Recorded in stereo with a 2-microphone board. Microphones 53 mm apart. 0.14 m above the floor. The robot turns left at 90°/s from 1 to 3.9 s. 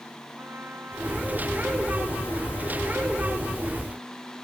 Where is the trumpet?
140° right; by 3.8 s 30° right.